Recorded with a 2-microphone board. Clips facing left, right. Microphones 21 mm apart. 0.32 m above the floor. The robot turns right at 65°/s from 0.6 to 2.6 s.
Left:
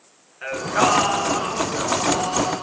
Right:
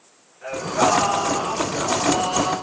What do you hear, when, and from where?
0.4 s singing: 95° left, 3.5 m; by 2.5 s 140° right, 3.5 m